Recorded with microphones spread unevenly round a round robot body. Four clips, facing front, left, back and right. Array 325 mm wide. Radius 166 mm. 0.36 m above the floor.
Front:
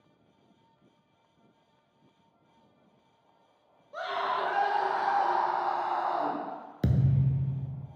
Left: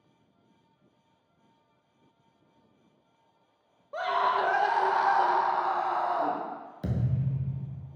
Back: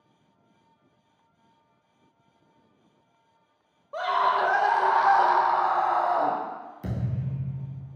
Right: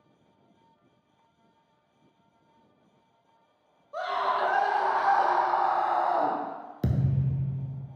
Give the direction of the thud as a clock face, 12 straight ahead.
1 o'clock.